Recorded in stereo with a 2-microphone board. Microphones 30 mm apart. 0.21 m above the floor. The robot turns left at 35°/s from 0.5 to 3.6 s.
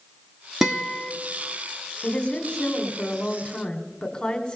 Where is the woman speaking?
110° left, 1.3 m; by 4.6 s 55° left, 1.3 m.